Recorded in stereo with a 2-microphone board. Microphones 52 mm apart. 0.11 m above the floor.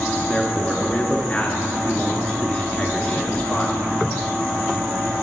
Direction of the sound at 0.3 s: 20° left (ahead or behind).